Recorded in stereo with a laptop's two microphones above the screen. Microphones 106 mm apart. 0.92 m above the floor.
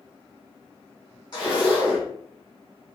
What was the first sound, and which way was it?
A zipper, 45° left (ahead or behind).